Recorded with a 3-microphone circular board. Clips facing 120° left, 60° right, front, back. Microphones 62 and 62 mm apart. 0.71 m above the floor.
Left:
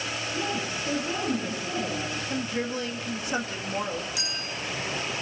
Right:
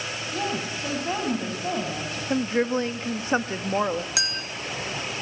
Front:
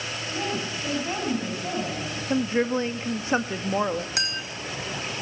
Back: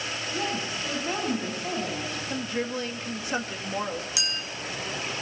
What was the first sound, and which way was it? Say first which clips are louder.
A woman speaking: right 3 dB, front 1 dB; 85° right.